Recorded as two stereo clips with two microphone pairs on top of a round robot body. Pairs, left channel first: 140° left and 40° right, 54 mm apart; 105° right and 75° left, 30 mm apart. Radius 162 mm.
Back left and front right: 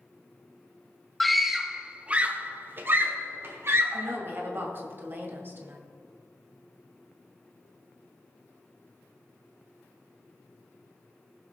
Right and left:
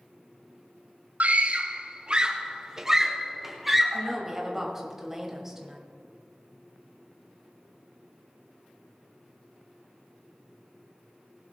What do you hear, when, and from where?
1.2 s a scream: 55° left, 1.4 m; by 4.2 s 15° right, 2.5 m
3.9 s a woman speaking: straight ahead, 2.5 m